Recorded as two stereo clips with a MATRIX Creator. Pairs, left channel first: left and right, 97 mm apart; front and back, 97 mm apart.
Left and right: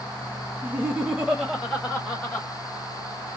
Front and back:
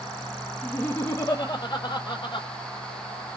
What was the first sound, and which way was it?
Laughter, 50° right.